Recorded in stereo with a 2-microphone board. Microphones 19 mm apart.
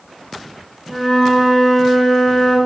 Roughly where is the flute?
Centre.